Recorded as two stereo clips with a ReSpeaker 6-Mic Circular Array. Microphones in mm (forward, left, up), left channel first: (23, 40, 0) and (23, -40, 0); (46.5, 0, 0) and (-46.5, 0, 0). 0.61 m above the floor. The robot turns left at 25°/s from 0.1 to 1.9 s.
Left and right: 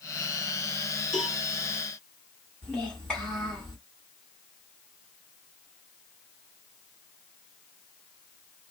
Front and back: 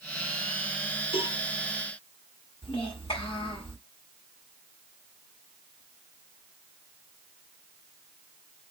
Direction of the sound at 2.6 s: 10° left.